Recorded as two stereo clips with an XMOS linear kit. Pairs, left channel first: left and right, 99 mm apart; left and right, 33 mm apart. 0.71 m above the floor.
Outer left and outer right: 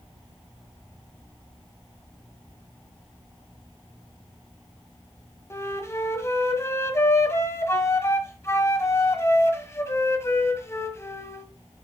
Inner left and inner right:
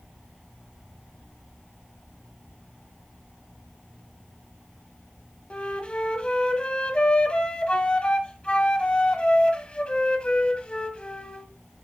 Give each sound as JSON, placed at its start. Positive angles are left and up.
{"t": 5.5, "sound": "a flute", "side_deg": 30, "distance_m": 1.4}